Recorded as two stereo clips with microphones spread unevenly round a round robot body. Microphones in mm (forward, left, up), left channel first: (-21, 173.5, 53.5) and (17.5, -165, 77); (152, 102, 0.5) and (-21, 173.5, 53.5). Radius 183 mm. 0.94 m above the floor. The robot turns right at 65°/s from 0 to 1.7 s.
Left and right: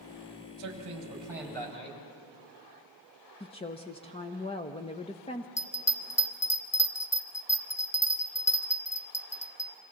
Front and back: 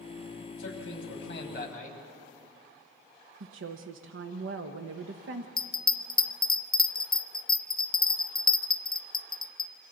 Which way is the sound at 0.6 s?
50° right.